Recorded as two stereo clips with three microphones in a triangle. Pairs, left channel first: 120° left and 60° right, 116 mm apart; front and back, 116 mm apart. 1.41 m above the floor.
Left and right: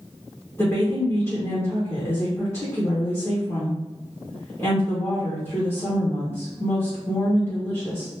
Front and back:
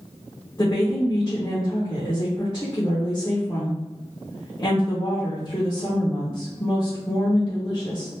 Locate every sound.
0.6 s a woman speaking: 60° left, 1.1 m